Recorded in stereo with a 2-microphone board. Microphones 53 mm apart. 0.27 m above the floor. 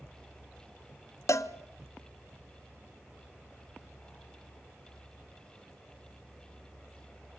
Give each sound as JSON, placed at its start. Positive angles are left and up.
{"t": 1.3, "sound": "a cowbell", "side_deg": 65, "distance_m": 0.6}